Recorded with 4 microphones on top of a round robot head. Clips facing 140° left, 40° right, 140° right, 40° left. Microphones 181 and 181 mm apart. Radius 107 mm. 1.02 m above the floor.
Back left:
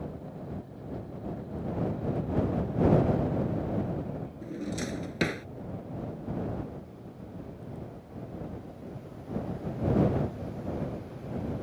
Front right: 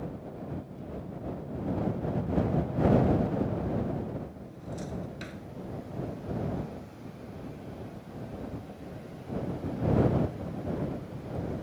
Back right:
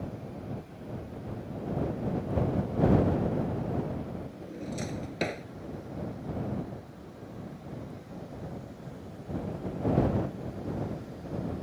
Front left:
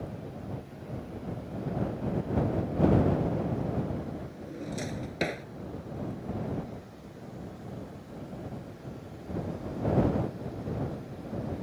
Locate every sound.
4.4 s a drawer: 125° left